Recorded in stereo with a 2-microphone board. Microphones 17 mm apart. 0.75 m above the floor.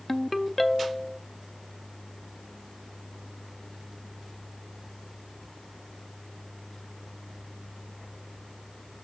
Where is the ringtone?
15° left (ahead or behind), 0.6 m.